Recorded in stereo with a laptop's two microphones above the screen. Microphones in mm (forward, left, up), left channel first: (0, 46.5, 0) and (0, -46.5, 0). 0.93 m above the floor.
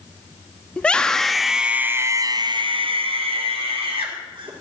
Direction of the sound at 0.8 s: 15° left (ahead or behind).